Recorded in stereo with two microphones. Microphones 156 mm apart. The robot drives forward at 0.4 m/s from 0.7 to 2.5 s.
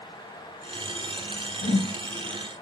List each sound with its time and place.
1.6 s a whoosh: 70° left (ahead or behind), 0.6 m; by 1.9 s 60° left (ahead or behind), 0.7 m